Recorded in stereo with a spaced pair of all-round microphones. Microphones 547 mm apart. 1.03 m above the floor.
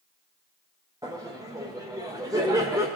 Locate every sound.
1.0 s laughter: 5° right (ahead or behind), 0.5 m